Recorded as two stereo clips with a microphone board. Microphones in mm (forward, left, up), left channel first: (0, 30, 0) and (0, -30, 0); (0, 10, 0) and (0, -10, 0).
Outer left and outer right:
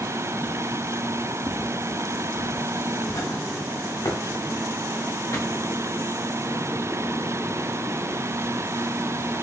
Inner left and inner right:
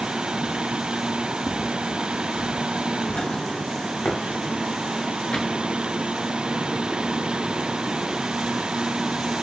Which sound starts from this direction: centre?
Footsteps, at 1.5 s.